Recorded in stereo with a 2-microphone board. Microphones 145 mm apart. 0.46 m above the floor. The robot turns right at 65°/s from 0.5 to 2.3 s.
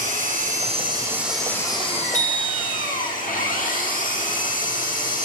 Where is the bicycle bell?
50° left (ahead or behind), 7.5 m; by 2.9 s 60° left (ahead or behind), 7.5 m.